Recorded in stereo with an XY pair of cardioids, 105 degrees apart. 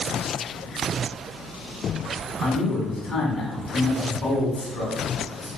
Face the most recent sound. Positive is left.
turn(degrees=45)